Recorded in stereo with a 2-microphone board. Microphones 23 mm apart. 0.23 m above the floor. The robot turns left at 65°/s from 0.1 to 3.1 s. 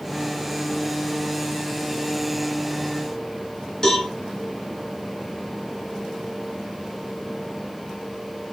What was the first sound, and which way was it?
A cowbell, 25° left (ahead or behind).